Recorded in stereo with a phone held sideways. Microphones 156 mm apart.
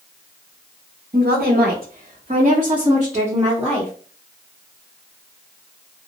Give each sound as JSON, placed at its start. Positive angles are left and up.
{"t": 1.1, "sound": "a woman speaking", "side_deg": -75, "distance_m": 0.9}